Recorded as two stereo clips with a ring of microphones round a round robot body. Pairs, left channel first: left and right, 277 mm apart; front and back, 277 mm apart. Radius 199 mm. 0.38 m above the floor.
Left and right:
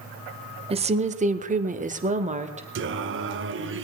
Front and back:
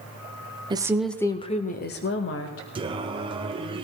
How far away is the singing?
About 0.9 m.